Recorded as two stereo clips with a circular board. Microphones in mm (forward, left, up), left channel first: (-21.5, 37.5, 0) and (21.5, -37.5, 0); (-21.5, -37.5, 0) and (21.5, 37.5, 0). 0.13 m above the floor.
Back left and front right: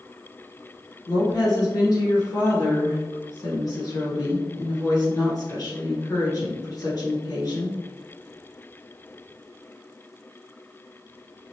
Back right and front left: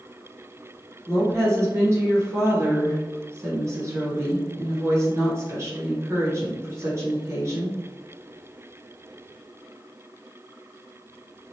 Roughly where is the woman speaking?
Left.